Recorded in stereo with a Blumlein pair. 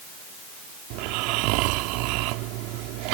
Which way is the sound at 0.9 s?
45° right.